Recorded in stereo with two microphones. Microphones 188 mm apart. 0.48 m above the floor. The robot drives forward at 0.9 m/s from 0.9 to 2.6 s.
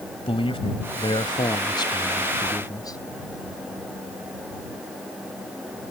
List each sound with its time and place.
0.3 s a man speaking: 30° left (ahead or behind); by 3.0 s 20° left (ahead or behind)